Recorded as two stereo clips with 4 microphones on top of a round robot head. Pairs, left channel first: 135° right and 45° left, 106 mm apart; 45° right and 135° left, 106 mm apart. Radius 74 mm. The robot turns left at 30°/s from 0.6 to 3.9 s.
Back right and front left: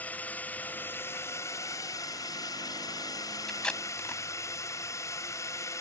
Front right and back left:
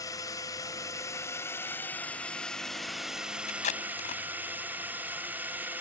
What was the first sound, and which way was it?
A drone, 70° right.